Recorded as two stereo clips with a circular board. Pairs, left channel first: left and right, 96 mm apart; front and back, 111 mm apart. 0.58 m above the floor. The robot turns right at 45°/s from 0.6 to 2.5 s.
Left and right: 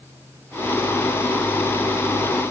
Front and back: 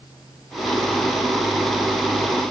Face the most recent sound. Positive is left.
No sound to turn to.